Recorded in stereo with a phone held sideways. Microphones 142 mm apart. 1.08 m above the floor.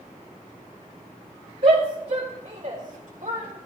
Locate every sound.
1.6 s a shout: 40° right (ahead or behind), 4 m; by 3.6 s 70° right (ahead or behind), 3.5 m